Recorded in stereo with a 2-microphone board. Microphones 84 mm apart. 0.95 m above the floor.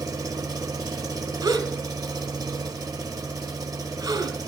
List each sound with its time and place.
0.0 s an engine running: 50° right (ahead or behind), 1.0 m
1.4 s a gasp: 60° right (ahead or behind), 1.6 m